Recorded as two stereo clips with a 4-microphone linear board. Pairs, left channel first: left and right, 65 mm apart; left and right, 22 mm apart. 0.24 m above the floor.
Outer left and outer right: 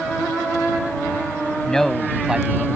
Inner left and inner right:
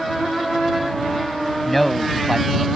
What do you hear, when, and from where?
1.6 s a man speaking: 10° left (ahead or behind); by 2.7 s 20° right (ahead or behind)